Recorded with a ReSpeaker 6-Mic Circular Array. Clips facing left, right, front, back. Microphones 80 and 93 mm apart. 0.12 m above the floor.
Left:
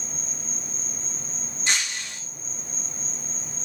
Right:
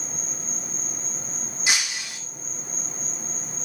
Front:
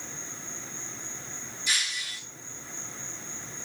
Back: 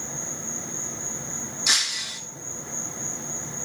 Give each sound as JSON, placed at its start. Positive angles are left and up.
{"t": 0.0, "sound": "an insect", "azimuth_deg": 180, "distance_m": 1.2}
{"t": 1.7, "sound": "breaking glass", "azimuth_deg": -175, "distance_m": 2.0}